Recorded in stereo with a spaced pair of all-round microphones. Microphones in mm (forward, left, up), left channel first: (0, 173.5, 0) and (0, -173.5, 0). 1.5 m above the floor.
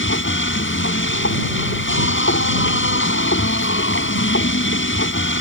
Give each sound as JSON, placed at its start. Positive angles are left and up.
{"t": 0.0, "sound": "a machine running", "side_deg": 35}